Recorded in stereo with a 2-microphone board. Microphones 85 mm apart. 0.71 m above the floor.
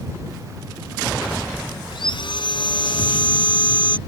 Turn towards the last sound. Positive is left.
turn(degrees=70)  # may be behind; listen again after turning